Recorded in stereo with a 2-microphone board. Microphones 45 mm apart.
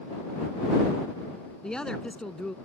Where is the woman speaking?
20° left (ahead or behind).